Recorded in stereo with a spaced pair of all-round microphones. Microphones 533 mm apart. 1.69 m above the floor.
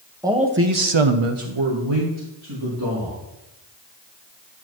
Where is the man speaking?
5° right (ahead or behind), 1.3 m; by 3.2 s 45° right (ahead or behind), 3.5 m.